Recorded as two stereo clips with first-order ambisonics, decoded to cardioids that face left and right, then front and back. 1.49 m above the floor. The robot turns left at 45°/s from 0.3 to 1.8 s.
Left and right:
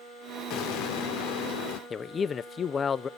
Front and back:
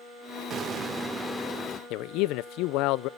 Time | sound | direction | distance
0.5 | an explosion | 125° left | 0.7 m
1.9 | a man speaking | 20° left | 0.5 m